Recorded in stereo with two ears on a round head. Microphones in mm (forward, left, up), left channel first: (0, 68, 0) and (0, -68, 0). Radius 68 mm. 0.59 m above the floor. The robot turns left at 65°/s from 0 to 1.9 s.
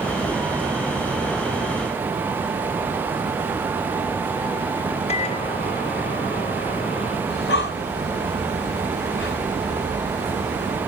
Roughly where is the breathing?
Left.